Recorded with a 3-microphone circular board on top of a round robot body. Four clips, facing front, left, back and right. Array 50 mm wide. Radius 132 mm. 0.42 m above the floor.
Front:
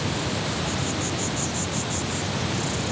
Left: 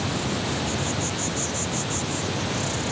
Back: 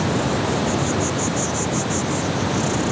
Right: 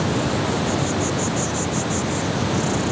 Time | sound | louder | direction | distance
0.0 | an insect | right 6 dB, back 7 dB | 145° right | ?